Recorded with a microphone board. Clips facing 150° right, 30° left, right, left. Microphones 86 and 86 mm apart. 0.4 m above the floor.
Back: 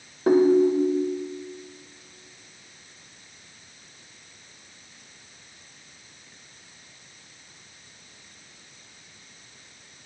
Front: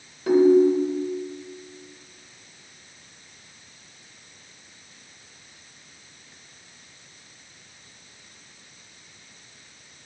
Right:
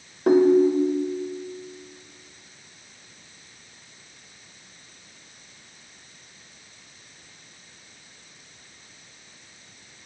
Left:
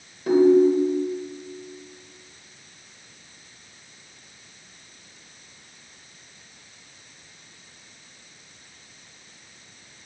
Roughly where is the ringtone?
Right.